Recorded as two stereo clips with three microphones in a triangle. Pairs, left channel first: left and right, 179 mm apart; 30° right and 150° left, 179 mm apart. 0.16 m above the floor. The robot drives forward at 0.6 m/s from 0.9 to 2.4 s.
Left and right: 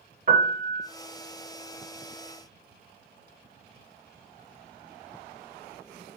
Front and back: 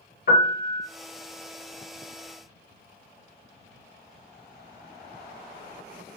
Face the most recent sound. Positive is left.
turn(degrees=-110)